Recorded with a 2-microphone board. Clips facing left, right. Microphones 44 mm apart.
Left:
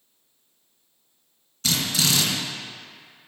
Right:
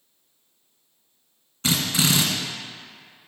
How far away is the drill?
About 1.9 m.